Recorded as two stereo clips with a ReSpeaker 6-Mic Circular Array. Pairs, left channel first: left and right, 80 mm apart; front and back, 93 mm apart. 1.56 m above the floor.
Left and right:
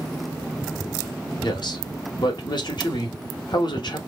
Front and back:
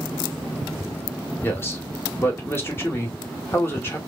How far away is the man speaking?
About 1.3 m.